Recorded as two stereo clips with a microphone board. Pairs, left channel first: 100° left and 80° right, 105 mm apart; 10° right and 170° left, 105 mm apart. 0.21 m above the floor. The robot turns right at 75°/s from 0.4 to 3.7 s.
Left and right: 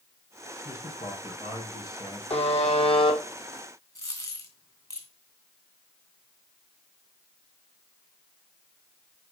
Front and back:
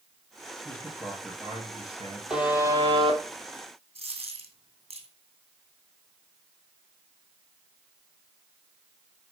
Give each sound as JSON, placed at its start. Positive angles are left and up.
{"t": 0.7, "sound": "a man speaking", "azimuth_deg": 55, "distance_m": 3.5}
{"t": 2.3, "sound": "a buzzer", "azimuth_deg": 85, "distance_m": 3.0}
{"t": 4.0, "sound": "a dropped coin", "azimuth_deg": 160, "distance_m": 2.5}